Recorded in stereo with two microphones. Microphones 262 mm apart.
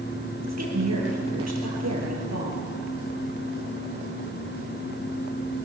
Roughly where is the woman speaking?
Right.